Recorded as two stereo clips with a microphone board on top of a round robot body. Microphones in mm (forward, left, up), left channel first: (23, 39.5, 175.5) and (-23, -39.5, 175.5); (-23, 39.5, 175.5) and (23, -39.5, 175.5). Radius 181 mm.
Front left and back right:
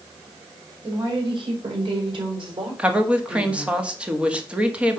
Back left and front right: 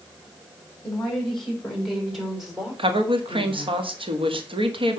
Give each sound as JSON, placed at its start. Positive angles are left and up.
{"t": 0.8, "sound": "a woman speaking", "azimuth_deg": -160, "distance_m": 4.0}
{"t": 2.8, "sound": "a woman speaking", "azimuth_deg": -40, "distance_m": 1.7}